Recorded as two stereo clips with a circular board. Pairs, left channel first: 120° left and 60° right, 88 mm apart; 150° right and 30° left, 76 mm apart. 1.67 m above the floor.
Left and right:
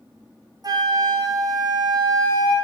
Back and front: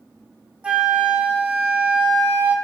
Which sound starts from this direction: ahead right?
A flute, at 0.6 s.